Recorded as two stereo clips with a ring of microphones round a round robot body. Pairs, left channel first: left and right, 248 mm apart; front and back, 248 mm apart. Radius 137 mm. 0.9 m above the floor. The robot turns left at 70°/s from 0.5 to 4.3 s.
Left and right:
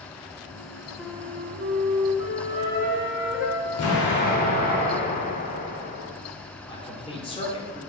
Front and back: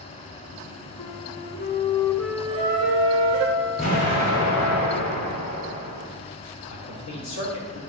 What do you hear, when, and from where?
1.0 s a flute: 5° right, 0.9 m; by 3.5 s 175° right, 0.9 m
2.5 s a trumpet: 170° left, 5 m; by 4.8 s 40° left, 5 m
3.8 s an explosion: 70° left, 2.5 m; by 6.1 s 35° left, 2.5 m
6.7 s a man speaking: 20° left, 3 m